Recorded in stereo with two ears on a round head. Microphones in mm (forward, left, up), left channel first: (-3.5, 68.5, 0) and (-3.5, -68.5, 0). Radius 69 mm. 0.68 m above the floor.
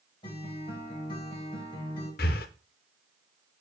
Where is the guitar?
35° left (ahead or behind), 2.5 m.